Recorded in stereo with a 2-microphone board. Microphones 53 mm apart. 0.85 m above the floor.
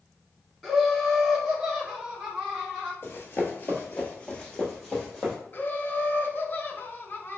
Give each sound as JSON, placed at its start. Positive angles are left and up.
{"t": 0.6, "sound": "laughter", "side_deg": 0, "distance_m": 0.9}
{"t": 3.0, "sound": "running footsteps", "side_deg": 45, "distance_m": 1.1}
{"t": 5.5, "sound": "laughter", "side_deg": 40, "distance_m": 0.6}